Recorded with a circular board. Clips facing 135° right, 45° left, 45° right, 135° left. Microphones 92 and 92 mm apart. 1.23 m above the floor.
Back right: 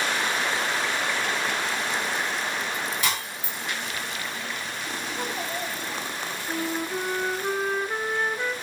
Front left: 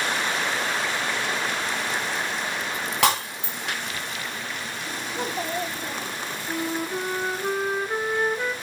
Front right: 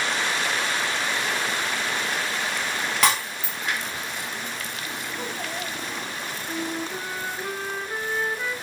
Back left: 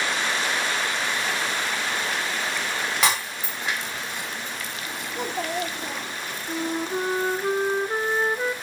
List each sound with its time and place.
3.0 s breaking glass: 50° left, 5 m
5.1 s a child speaking: 110° left, 1.6 m
6.5 s a flute: 125° left, 0.7 m